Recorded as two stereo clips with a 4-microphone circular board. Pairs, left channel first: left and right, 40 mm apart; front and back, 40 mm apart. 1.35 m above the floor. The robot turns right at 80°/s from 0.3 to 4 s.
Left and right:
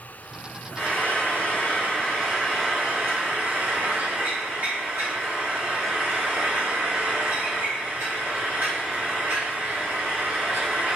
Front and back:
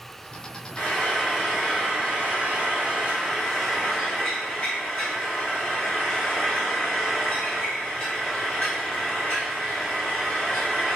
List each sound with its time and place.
0.8 s frying: 45° left, 1.8 m; by 11.0 s 55° right, 1.8 m